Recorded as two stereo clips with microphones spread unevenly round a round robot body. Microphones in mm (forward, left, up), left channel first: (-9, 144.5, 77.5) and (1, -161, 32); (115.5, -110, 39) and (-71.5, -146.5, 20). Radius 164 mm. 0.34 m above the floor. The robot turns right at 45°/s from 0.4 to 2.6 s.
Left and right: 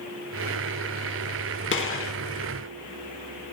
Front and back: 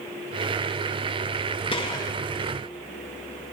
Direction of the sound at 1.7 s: 60° left.